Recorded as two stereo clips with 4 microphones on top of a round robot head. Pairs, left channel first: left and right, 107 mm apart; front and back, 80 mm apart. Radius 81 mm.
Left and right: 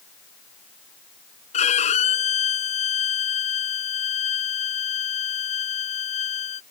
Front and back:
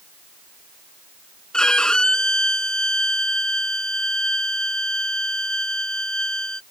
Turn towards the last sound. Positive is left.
turn(degrees=80)